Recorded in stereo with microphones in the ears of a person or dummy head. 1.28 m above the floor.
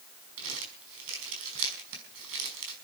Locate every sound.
0.4 s crumpling: 80° right, 5 m